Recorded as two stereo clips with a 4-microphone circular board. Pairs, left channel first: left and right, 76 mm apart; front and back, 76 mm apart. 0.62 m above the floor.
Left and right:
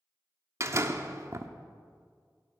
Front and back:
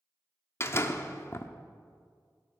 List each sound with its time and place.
0.6 s a door slam: 50° right, 0.7 m